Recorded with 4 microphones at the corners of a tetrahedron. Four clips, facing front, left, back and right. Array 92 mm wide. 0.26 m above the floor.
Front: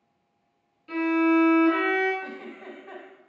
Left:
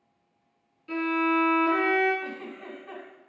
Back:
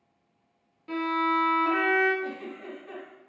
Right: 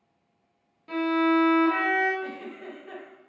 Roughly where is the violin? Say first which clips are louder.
Right 2 dB, front 4 dB; behind right.